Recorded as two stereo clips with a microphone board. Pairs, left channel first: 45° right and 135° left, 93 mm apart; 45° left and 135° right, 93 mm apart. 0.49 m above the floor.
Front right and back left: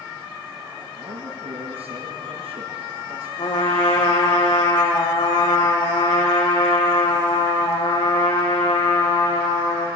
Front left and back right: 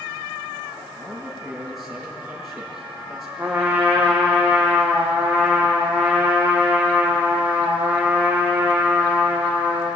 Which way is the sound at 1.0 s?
140° left.